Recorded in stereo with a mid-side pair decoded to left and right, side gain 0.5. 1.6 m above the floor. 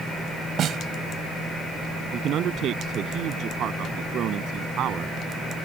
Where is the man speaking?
60° right.